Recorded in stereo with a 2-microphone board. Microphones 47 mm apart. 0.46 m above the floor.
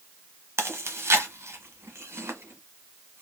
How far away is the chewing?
About 1.0 m.